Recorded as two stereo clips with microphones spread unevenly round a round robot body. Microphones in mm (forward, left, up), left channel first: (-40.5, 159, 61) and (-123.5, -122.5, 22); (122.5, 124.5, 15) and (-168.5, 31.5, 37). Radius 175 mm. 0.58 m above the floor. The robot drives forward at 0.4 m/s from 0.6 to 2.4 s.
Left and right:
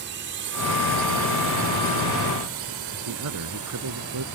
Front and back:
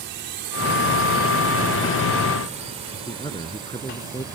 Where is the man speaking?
60° right.